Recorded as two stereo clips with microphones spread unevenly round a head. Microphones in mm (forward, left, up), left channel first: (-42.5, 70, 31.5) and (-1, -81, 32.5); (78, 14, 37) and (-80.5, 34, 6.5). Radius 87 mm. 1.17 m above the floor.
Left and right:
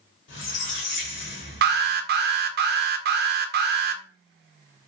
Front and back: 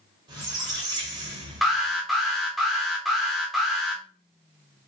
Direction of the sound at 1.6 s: 100° right.